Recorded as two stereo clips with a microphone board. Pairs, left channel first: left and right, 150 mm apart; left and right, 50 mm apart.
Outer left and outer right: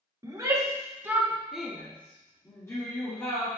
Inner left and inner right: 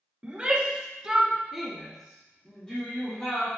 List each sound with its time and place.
0.2 s a shout: 25° right (ahead or behind), 1.4 m; by 3.5 s 20° left (ahead or behind), 1.9 m